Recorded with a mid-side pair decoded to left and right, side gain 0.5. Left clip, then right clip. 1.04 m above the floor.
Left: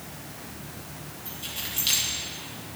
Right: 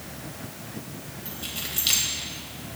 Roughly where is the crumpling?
No crumpling in this recording.